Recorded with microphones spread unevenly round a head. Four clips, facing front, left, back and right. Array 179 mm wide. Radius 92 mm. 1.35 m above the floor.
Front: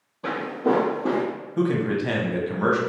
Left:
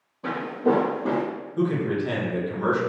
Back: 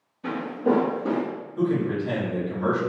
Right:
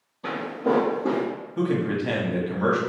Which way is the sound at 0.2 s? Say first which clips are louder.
Left 2 dB, front 1 dB; 20° left.